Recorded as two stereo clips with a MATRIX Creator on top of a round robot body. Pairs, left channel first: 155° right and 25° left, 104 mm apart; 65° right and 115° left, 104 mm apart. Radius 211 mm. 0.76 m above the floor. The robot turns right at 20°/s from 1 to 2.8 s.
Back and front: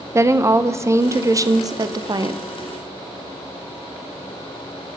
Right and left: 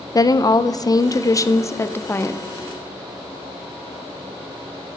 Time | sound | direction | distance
0.1 | a woman speaking | 30° right | 0.7 m